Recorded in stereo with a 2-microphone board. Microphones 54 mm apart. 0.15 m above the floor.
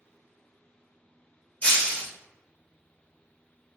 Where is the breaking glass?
30° left (ahead or behind), 1.1 m.